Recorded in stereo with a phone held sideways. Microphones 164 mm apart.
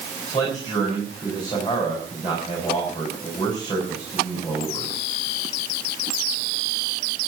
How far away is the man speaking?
About 6.5 m.